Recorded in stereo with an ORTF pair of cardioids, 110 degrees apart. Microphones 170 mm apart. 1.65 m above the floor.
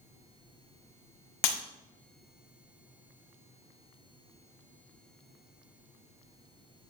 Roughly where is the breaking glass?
Ahead left.